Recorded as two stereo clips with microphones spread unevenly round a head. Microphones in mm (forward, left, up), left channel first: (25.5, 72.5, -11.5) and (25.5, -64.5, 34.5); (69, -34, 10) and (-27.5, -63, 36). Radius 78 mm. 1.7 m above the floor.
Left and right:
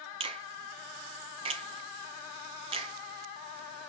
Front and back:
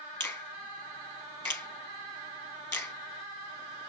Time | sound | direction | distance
0.2 | a finger snap | 60° right | 0.9 m